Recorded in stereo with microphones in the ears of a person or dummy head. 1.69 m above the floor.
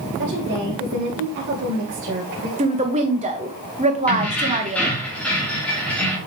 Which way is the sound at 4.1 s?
5° left (ahead or behind).